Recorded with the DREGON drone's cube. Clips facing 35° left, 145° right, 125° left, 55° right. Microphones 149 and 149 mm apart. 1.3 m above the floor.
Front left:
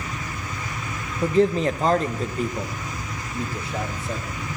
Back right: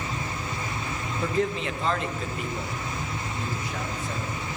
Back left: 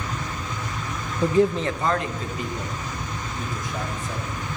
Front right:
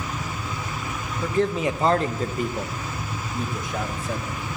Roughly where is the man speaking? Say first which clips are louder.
Front left 8 dB, back left 3 dB; left.